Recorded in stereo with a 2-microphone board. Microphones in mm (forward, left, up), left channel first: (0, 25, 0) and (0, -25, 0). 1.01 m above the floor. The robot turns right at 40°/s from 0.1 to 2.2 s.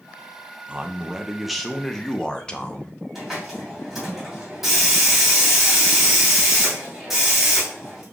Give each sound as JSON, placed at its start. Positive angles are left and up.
{"t": 0.7, "sound": "a man speaking", "azimuth_deg": -35, "distance_m": 0.6}
{"t": 3.1, "sound": "a hiss", "side_deg": 0, "distance_m": 2.5}